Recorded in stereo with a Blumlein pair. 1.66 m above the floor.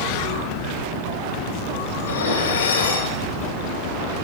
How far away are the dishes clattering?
About 4.5 m.